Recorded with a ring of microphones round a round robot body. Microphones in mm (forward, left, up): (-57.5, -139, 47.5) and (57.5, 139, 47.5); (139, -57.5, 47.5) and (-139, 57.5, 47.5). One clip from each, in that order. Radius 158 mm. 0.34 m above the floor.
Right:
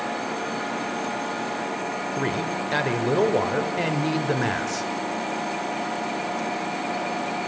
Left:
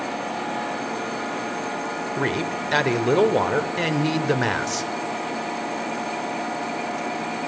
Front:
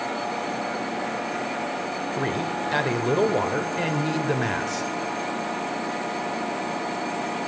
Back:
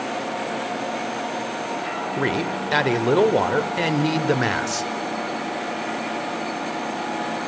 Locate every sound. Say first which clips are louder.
2.2 s a man speaking: left 3 dB, back 3 dB; 120° left, 1.3 m